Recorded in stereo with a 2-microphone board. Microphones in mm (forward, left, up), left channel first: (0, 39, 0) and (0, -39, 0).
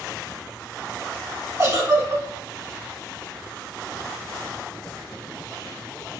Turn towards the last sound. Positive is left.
turn(degrees=-35)  # may be behind; listen again after turning